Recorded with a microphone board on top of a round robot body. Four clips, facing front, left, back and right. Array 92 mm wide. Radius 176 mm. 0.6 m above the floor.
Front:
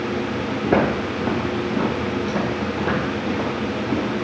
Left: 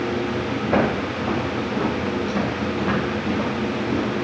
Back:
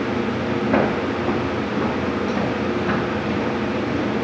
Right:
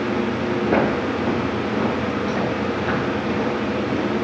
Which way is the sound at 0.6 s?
20° right.